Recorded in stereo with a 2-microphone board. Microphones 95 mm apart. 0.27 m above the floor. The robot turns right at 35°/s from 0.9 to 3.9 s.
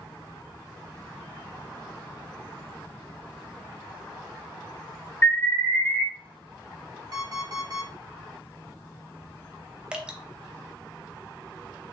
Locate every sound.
5.2 s an alarm: 25° left (ahead or behind), 2.5 m
7.1 s an alarm clock: 45° right (ahead or behind), 2 m
9.9 s dripping: 10° right (ahead or behind), 0.6 m